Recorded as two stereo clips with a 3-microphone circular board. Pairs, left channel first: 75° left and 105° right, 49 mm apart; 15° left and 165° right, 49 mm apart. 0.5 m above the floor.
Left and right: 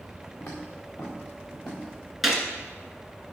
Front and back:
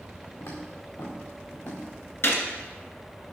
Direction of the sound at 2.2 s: 20° right.